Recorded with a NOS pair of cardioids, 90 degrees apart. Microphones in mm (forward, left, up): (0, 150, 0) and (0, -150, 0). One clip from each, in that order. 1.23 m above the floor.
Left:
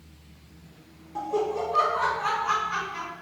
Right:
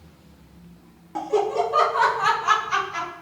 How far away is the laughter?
About 0.8 m.